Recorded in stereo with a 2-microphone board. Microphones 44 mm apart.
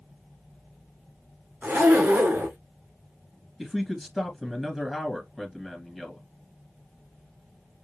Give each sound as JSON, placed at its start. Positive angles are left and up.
{"t": 1.6, "sound": "a zipper", "side_deg": -45, "distance_m": 2.5}
{"t": 3.6, "sound": "a man speaking", "side_deg": 0, "distance_m": 2.0}